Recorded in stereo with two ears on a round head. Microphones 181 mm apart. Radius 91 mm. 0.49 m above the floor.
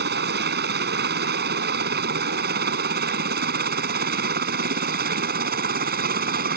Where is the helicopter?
50° right (ahead or behind); by 6.6 s 45° right (ahead or behind).